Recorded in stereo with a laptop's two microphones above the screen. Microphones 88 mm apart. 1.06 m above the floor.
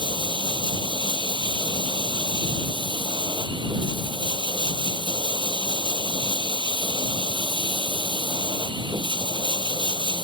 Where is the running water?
65° right (ahead or behind).